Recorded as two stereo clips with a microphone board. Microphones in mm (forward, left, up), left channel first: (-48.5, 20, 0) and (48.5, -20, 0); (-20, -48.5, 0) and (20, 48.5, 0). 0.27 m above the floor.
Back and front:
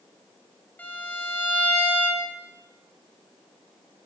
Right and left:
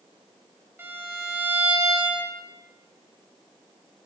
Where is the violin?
105° left, 0.9 m.